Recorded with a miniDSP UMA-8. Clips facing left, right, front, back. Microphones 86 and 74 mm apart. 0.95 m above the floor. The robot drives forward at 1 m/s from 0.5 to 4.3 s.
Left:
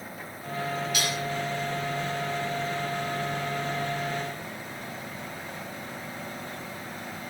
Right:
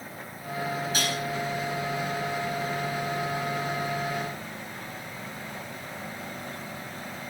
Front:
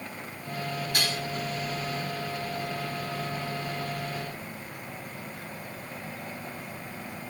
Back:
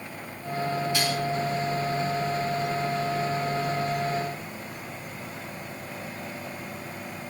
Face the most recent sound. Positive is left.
turn(degrees=-100)